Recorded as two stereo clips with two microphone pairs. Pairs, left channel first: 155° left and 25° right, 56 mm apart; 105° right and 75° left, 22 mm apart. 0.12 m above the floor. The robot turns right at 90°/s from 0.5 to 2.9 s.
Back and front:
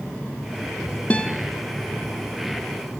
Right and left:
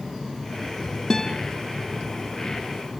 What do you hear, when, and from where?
1.1 s a guitar: 160° right, 1.7 m; by 1.3 s 140° right, 1.7 m